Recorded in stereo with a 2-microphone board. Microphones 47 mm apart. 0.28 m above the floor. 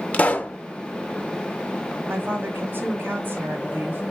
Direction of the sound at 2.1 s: 50° right (ahead or behind).